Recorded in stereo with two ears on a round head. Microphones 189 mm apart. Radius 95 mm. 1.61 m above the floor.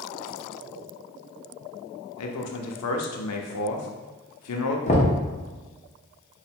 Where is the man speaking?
85° left, 0.7 m.